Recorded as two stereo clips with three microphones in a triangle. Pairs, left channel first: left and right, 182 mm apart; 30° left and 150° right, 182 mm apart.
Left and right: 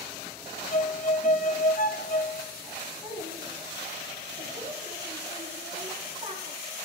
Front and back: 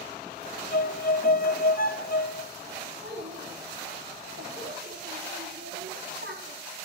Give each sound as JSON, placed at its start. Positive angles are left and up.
{"t": 0.7, "sound": "a violin", "azimuth_deg": 55, "distance_m": 0.8}
{"t": 3.0, "sound": "a child speaking", "azimuth_deg": -160, "distance_m": 7.0}